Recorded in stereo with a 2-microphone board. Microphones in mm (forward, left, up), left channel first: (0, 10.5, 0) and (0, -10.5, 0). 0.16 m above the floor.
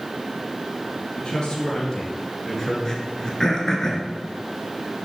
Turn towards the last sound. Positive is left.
turn(degrees=25)  # may be behind; listen again after turning